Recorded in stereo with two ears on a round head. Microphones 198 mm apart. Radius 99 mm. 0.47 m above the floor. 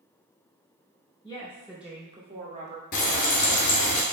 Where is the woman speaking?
20° left (ahead or behind), 0.7 m; by 2.8 s 35° right (ahead or behind), 1.0 m.